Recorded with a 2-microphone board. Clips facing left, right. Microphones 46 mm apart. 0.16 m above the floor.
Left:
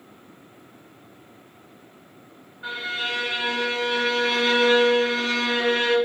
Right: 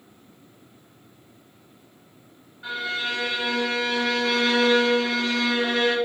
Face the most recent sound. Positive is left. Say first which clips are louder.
# even
turn(degrees=15)  # may be behind; listen again after turning